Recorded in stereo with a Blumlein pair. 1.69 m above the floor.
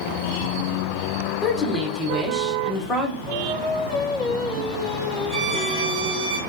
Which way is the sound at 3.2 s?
15° right.